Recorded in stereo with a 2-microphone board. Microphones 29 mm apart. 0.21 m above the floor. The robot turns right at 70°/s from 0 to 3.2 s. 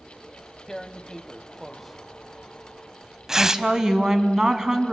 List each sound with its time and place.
0.7 s tearing paper: 20° left (ahead or behind), 0.6 m; by 3.6 s 20° right (ahead or behind), 0.6 m
3.4 s a woman speaking: 20° right (ahead or behind), 1.5 m